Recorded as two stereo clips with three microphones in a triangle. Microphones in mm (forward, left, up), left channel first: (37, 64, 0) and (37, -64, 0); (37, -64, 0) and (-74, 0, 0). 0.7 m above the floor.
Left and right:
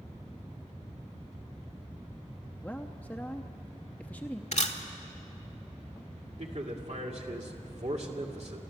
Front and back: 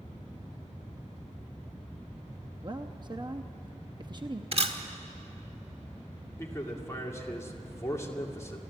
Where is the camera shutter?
115° left, 1.3 m.